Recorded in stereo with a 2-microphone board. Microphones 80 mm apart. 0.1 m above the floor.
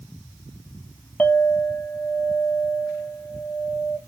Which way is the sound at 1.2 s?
20° left (ahead or behind).